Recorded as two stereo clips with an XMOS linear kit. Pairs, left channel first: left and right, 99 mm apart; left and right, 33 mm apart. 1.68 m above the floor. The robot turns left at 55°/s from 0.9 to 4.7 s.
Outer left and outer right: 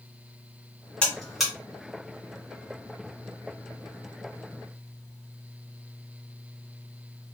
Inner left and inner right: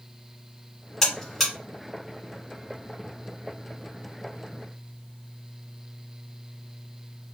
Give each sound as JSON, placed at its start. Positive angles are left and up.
{"t": 1.0, "sound": "a buzzer", "side_deg": 10, "distance_m": 1.8}